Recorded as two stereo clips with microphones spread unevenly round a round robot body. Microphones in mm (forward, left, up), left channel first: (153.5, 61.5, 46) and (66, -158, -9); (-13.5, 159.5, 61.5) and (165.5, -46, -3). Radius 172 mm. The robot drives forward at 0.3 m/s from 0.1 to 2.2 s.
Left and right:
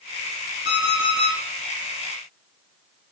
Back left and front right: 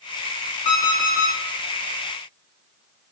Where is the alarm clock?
125° left, 3 m; by 1.4 s 130° left, 3.5 m.